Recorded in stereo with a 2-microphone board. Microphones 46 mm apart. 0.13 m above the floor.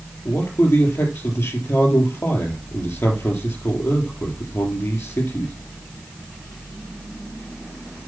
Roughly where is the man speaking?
Left.